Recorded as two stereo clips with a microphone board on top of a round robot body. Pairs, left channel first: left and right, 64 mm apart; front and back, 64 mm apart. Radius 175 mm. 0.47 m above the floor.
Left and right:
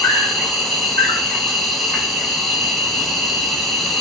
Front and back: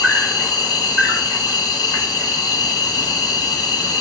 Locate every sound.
0.0 s an insect: 5° left, 2.5 m